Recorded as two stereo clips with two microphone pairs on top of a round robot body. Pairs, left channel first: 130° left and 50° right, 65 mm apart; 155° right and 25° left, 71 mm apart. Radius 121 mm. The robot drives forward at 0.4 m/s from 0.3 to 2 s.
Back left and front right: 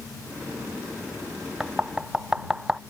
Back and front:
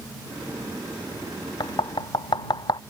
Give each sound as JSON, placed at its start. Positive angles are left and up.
{"t": 1.6, "sound": "knocking", "azimuth_deg": -130}